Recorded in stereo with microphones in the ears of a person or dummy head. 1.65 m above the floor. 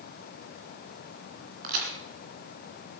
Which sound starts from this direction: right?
A crack, at 1.6 s.